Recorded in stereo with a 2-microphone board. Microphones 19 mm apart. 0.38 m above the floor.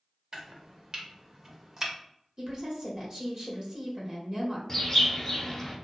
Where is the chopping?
35° right (ahead or behind), 0.7 m.